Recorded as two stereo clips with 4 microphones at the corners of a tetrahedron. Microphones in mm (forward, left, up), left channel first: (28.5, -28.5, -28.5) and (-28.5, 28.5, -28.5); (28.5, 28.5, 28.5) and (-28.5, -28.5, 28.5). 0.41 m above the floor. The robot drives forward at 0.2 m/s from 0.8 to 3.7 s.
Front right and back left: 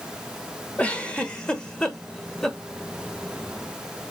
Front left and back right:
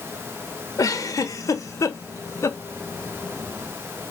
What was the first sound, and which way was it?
A giggle, 20° left.